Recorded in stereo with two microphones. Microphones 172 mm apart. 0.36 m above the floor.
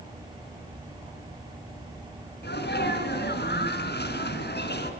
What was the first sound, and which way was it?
A sneeze, 75° left (ahead or behind).